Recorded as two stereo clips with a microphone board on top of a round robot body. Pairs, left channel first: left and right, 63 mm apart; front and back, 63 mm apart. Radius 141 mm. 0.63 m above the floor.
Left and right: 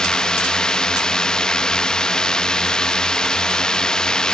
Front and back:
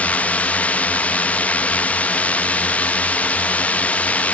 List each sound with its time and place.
0.0 s a drone: 25° left